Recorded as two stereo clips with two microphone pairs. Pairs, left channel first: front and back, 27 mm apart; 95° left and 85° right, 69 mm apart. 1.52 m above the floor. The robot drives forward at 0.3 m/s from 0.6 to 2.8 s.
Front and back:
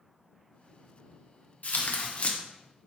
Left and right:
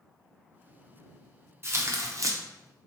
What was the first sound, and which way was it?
Tearing paper, 35° right.